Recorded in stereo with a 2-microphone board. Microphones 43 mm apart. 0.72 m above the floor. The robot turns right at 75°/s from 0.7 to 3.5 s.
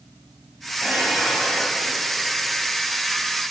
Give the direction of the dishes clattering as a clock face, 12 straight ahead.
2 o'clock.